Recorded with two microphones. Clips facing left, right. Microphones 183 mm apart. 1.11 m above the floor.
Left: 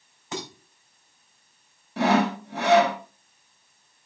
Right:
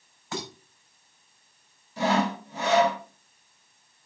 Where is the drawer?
No drawer in this recording.